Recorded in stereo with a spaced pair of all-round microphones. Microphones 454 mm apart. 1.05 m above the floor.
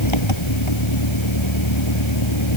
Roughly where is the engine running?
Left.